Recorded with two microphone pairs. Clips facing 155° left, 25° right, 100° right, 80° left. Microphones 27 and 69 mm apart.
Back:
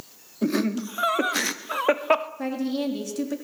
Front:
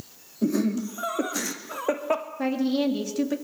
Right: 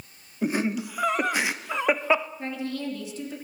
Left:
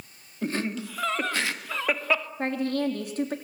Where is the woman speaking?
50° left, 3.5 m.